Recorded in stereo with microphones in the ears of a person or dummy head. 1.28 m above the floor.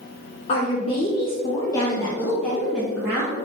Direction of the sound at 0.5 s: 40° left (ahead or behind).